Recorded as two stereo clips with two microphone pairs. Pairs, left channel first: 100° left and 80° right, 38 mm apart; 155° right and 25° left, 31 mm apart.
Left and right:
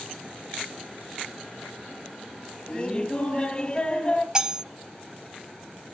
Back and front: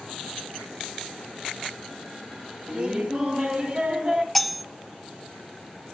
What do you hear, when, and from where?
2.7 s laughter: 60° left, 1.9 m
4.3 s cutlery clinking: 85° right, 0.5 m